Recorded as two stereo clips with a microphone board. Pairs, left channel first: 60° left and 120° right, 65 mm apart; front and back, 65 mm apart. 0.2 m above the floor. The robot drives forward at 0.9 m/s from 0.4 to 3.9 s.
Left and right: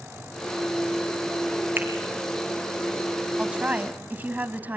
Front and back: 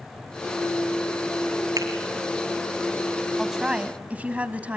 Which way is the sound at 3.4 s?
85° right.